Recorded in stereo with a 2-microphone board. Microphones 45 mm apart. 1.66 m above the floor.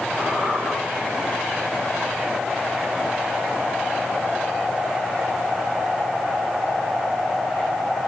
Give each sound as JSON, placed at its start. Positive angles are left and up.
{"t": 0.2, "sound": "a squeak", "side_deg": 60, "distance_m": 7.5}